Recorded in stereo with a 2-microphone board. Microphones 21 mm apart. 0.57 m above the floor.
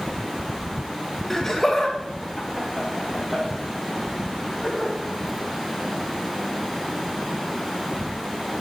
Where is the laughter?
10° left (ahead or behind), 0.8 m; by 4.9 s 20° left (ahead or behind), 4 m.